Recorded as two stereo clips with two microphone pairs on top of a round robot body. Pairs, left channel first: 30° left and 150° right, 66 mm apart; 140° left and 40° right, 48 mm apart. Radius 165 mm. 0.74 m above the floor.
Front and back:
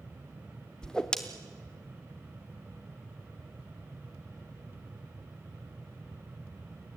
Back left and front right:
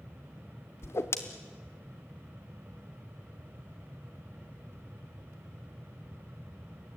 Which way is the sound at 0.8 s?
110° left.